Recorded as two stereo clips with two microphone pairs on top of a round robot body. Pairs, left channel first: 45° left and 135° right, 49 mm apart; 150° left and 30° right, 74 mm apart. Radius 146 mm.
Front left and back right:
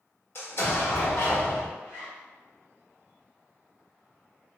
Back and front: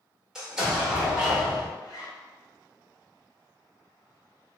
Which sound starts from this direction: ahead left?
An explosion, at 0.3 s.